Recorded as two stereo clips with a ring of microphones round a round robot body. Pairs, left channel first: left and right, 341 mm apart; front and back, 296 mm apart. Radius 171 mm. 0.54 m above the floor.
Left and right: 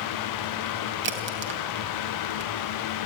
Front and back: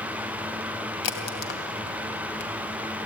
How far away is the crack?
About 3 m.